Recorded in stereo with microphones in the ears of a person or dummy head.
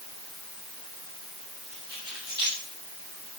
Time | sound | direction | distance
1.7 | keys jangling | 25° right (ahead or behind) | 6 m